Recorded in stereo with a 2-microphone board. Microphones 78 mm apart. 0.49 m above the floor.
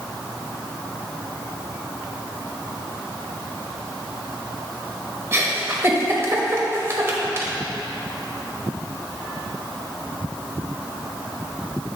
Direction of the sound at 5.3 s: 30° right (ahead or behind).